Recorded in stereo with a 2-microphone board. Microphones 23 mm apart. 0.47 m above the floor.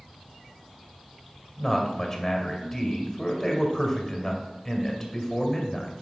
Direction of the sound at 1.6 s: 15° left (ahead or behind).